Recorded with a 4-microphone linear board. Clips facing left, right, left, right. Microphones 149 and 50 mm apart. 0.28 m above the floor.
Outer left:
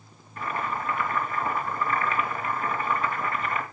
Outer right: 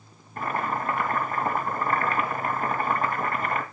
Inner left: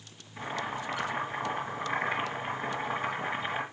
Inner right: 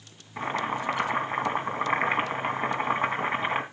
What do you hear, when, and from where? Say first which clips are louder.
0.4 s boiling: outer right 2 dB, inner right 6 dB; 45° right (ahead or behind), 2.5 m